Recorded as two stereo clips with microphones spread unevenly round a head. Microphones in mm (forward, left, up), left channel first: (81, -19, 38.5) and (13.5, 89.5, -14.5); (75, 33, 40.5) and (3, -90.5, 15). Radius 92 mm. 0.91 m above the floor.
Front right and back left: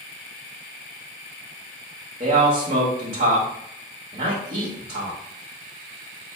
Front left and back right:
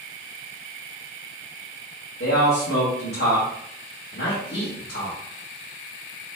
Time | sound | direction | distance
2.2 | a man speaking | 90° left | 1.3 m